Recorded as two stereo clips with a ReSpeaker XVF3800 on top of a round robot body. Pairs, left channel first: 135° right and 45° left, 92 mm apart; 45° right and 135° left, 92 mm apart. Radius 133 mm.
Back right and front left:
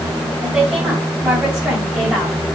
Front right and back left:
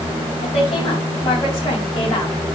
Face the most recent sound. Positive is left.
turn(degrees=-30)